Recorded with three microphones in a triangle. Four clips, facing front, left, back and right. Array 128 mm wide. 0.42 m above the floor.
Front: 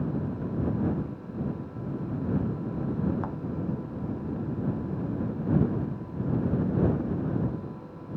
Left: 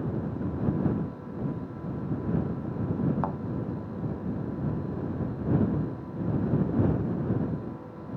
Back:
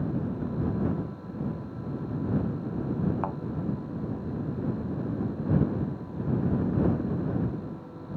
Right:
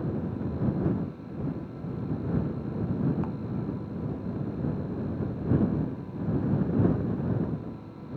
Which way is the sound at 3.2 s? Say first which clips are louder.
Left 4 dB, back 3 dB; 135° left.